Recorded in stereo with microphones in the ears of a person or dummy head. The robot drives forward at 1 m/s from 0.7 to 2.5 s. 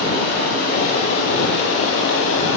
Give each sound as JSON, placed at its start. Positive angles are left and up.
{"t": 0.0, "sound": "running water", "side_deg": 55, "distance_m": 5.5}